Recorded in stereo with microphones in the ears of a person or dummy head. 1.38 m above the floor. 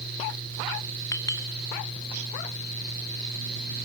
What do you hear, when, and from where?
1.1 s a clink: 15° left (ahead or behind), 1.2 m